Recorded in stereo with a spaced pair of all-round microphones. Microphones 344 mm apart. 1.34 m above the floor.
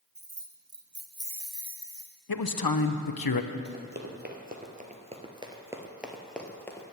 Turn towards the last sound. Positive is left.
turn(degrees=10)  # may be behind; listen again after turning